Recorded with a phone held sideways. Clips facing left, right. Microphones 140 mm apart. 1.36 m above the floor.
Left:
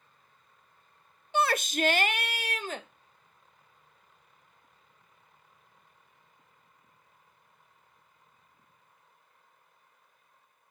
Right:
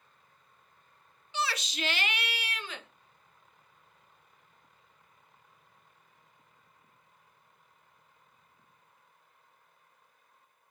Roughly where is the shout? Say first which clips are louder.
Left 7 dB; left.